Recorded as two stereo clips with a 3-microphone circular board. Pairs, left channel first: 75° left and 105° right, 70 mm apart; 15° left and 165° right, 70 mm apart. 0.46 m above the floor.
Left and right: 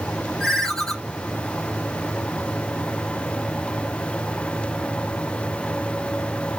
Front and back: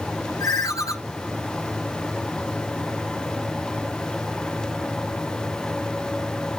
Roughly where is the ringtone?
Ahead.